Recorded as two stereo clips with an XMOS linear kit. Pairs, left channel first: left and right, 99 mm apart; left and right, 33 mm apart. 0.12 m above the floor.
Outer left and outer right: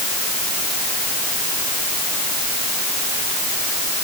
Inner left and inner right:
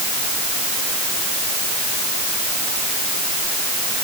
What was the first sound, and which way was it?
Only background noise.